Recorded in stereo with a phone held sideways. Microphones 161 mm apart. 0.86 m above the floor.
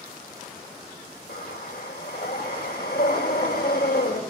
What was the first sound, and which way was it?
Breathing, 80° left.